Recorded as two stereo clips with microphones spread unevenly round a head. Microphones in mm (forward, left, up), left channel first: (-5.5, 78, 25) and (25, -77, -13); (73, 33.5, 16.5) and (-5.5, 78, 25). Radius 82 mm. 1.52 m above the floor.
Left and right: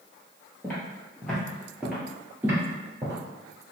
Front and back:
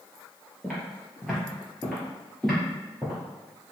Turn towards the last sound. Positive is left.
turn(degrees=-140)